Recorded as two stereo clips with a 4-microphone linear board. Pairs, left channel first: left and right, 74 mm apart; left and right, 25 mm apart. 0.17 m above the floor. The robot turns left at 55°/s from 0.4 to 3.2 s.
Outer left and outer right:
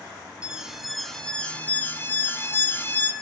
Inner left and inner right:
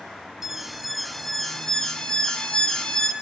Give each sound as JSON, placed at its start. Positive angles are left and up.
{"t": 0.4, "sound": "an alarm", "side_deg": -10, "distance_m": 1.5}